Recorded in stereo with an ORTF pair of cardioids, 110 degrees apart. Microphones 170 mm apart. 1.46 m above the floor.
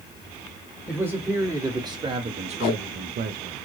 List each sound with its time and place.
0.9 s a man speaking: 10° right, 1.5 m; by 3.6 s 75° right, 0.9 m
2.6 s tape being pulled: 65° left, 0.8 m